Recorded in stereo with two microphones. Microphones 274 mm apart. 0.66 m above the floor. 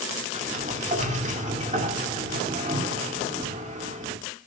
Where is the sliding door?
25° right (ahead or behind), 2 m.